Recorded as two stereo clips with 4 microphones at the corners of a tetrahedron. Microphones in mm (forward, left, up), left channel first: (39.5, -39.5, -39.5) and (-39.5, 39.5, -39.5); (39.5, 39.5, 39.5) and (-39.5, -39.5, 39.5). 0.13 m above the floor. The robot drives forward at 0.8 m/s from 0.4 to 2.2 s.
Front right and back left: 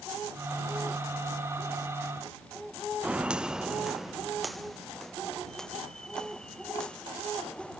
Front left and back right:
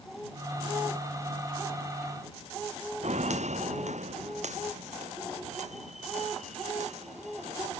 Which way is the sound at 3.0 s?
145° right.